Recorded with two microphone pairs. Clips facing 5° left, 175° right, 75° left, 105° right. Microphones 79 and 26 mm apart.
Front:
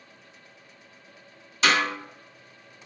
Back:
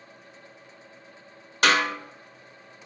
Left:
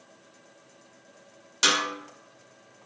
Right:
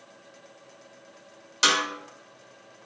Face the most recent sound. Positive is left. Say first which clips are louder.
# back 1 dB, right 1 dB
turn(degrees=165)